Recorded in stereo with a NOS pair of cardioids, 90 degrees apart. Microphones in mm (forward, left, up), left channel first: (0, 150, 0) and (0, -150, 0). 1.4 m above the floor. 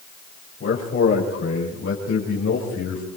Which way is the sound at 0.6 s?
40° left.